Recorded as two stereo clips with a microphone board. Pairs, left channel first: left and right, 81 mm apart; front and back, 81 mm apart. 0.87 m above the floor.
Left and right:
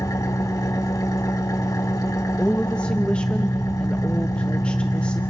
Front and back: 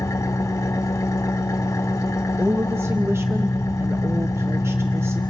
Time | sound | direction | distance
0.0 | an engine running | 45° left | 1.1 m
2.4 | a woman speaking | 155° left | 0.7 m